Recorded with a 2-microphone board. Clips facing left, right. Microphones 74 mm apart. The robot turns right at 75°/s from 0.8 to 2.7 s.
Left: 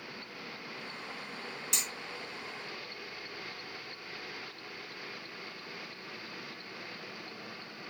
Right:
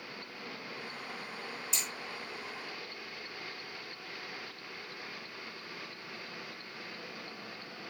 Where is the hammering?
75° left (ahead or behind), 3.5 m.